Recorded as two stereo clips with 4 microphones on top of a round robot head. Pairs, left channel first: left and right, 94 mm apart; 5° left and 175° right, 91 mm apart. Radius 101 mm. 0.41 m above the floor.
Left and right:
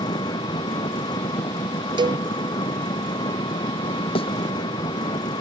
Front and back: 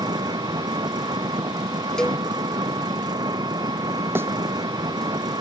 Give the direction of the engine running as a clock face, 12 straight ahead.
7 o'clock.